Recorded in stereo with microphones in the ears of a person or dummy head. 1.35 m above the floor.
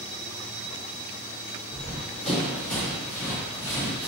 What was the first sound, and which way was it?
Running footsteps, 5° left (ahead or behind).